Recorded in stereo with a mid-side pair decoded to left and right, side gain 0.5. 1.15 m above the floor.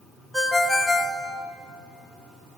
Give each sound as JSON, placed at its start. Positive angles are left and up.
{"t": 0.3, "sound": "a ringtone", "azimuth_deg": 5, "distance_m": 1.5}